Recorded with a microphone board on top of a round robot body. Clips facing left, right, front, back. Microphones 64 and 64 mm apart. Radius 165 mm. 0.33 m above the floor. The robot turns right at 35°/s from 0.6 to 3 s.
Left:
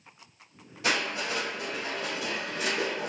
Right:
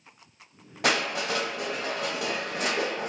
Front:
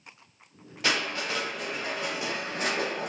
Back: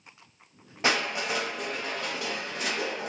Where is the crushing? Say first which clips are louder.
Right 3 dB, back 2 dB; 115° right, 0.8 m; by 3.1 s 40° right, 0.8 m.